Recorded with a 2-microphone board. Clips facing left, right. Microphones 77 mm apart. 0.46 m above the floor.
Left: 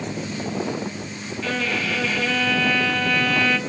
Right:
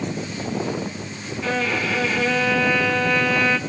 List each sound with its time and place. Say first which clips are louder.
1.4 s a violin: right 2 dB; 10° right (ahead or behind), 3 m